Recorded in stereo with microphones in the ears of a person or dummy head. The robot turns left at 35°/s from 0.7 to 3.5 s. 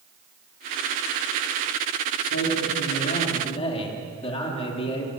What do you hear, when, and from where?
2.2 s a man speaking: 80° left, 4.5 m; by 5.1 s 35° left, 4.5 m